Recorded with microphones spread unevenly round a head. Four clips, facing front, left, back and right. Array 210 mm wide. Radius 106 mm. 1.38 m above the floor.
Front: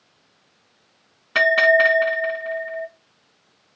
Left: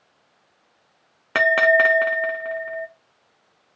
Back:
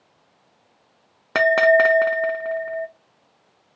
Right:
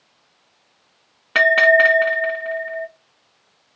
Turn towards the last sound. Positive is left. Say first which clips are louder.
# right 3 dB, back 1 dB
turn(degrees=155)